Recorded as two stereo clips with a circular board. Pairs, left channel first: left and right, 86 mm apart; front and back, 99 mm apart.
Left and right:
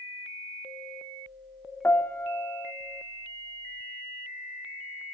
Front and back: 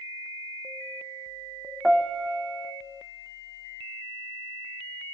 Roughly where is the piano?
Left.